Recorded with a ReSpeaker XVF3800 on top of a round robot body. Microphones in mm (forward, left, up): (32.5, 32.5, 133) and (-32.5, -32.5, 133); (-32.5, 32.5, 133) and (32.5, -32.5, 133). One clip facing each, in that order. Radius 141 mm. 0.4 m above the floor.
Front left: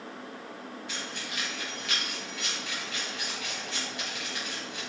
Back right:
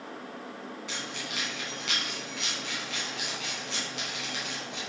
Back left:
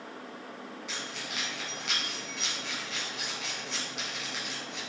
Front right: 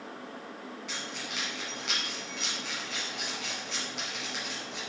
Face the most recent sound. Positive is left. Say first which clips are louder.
# even, even
turn(degrees=-135)